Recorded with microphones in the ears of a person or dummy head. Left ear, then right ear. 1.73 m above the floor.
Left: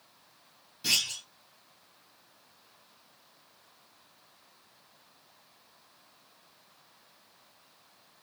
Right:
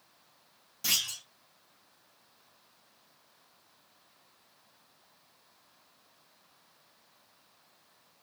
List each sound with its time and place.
0.8 s a clunk: 40° right (ahead or behind), 2 m